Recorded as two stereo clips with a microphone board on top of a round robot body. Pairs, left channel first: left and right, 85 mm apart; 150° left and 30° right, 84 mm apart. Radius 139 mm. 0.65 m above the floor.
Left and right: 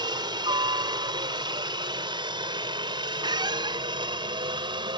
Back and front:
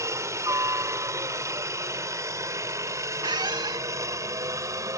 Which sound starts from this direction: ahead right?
A squeak, at 3.2 s.